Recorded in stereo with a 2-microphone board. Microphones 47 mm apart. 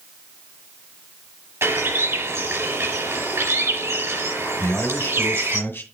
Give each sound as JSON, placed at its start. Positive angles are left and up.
{"t": 1.6, "sound": "a bird", "side_deg": -70, "distance_m": 4.5}
{"t": 4.6, "sound": "a man speaking", "side_deg": 55, "distance_m": 2.0}